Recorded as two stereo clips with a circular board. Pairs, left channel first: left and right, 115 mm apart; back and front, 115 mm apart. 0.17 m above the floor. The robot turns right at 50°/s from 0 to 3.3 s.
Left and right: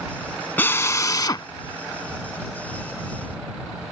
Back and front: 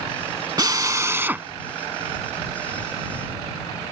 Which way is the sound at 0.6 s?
30° left.